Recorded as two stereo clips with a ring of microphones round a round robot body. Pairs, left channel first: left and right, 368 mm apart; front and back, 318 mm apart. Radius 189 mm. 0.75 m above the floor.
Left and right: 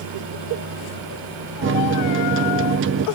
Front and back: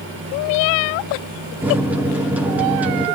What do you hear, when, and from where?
1.6 s a microwave: 100° right, 0.8 m